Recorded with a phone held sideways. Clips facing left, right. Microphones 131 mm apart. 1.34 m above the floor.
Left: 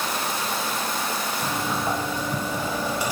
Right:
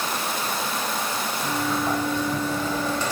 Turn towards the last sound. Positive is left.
turn(degrees=10)  # may be behind; listen again after turning